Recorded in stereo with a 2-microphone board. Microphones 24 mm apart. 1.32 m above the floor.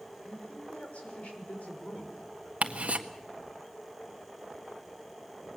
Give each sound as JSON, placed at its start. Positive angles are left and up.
{"t": 0.2, "sound": "a man speaking", "side_deg": 75, "distance_m": 6.0}
{"t": 2.6, "sound": "ticking", "side_deg": -70, "distance_m": 1.6}